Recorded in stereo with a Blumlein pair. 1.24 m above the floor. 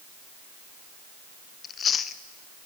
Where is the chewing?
25° left, 0.7 m.